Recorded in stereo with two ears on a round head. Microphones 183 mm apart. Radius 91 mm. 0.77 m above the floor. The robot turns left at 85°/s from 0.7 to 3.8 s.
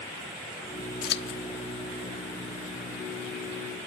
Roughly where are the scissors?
Left.